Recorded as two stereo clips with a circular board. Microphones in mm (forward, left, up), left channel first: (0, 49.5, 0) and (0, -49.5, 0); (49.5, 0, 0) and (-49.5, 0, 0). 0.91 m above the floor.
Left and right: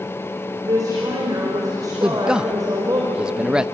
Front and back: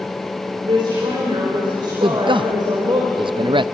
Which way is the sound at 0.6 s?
140° right.